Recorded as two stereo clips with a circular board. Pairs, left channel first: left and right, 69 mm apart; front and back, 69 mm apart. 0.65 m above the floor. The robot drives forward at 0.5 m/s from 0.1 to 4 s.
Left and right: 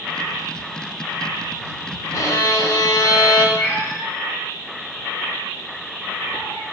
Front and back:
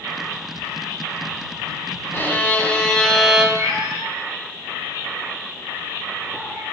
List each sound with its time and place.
2.1 s a violin: 55° left, 1.1 m; by 3.5 s 95° left, 1.0 m
3.5 s a cat meowing: 140° left, 2.5 m; by 6.6 s 145° left, 2.5 m